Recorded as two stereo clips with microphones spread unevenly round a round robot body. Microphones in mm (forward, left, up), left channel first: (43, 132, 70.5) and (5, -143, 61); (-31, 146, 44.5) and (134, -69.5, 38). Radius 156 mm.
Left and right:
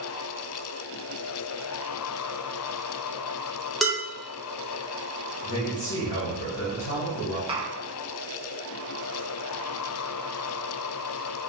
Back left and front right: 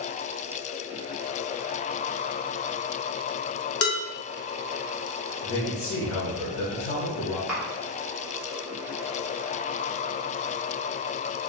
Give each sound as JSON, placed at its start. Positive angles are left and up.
{"t": 3.8, "sound": "dishes clattering", "azimuth_deg": 175, "distance_m": 0.6}
{"t": 5.4, "sound": "a man speaking", "azimuth_deg": 115, "distance_m": 1.1}
{"t": 7.5, "sound": "tapping", "azimuth_deg": -125, "distance_m": 0.9}